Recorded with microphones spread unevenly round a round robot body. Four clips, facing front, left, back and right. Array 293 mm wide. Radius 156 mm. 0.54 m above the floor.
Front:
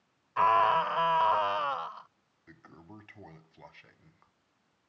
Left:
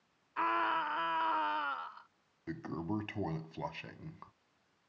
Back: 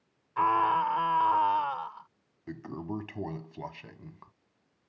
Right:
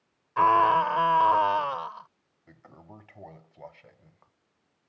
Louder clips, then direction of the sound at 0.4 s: Right 13 dB, front 1 dB; 90° right.